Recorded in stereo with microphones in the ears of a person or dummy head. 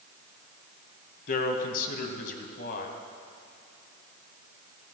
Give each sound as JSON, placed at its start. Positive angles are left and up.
{"t": 1.3, "sound": "a man speaking", "side_deg": 50, "distance_m": 1.8}